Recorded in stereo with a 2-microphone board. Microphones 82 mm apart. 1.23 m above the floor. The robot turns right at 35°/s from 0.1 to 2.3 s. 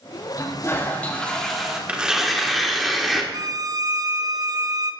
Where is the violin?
45° right (ahead or behind), 0.9 m.